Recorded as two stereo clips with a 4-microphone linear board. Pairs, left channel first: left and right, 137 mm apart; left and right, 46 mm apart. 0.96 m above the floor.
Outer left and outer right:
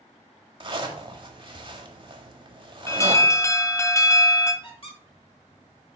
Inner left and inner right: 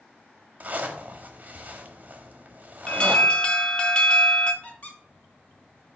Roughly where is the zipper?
Right.